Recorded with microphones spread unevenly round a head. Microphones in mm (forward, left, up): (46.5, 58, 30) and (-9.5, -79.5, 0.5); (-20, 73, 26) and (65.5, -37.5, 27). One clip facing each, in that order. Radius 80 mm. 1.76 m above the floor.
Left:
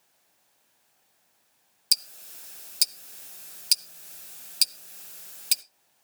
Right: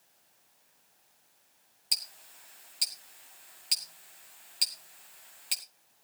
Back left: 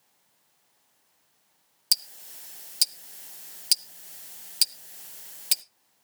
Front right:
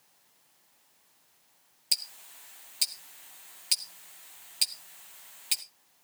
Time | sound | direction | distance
1.9 | ticking | 90° left | 0.5 m